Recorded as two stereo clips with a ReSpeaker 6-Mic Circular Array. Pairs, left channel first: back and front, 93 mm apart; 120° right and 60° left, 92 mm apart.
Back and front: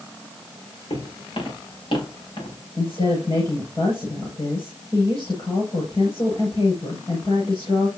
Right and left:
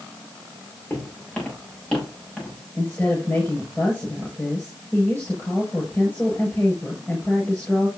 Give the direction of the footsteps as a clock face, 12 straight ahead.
6 o'clock.